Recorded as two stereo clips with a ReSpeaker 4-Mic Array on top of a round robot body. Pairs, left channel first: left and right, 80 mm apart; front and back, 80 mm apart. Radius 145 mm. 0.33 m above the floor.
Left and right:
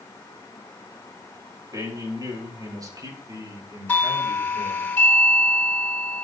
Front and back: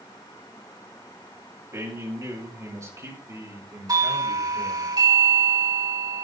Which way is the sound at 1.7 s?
130° right.